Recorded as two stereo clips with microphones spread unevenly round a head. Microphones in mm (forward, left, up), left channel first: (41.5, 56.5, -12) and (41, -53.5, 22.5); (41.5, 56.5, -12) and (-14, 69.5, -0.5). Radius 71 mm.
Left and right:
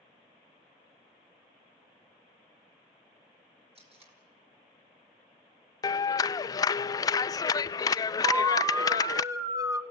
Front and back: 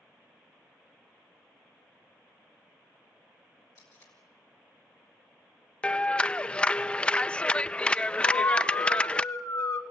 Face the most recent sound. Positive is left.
turn(degrees=-25)